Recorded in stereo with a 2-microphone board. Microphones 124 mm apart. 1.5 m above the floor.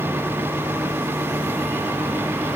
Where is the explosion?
I don't hear an explosion.